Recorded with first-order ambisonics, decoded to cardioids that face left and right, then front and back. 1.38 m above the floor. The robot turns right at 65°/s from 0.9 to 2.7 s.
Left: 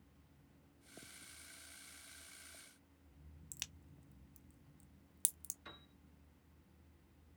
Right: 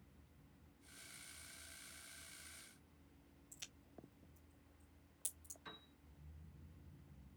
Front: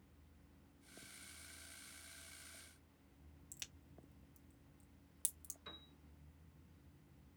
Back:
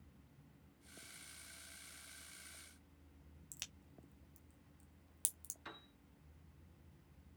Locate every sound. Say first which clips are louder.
3.5 s a crack: left 7 dB, back 2 dB; 110° left, 0.9 m
5.7 s a piano: even, back 1 dB; 175° left, 3 m